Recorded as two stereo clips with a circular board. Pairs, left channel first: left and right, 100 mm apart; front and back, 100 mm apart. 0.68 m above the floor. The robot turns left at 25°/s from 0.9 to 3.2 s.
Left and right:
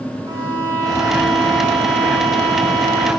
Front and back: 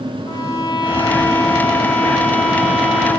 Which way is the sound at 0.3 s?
40° right.